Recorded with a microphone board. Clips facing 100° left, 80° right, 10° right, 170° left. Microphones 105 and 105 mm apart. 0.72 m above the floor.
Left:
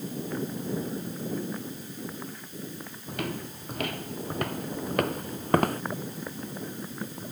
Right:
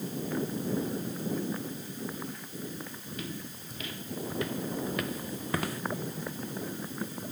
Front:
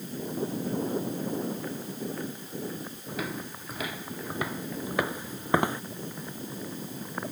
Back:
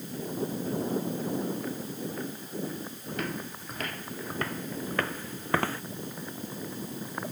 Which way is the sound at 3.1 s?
75° left.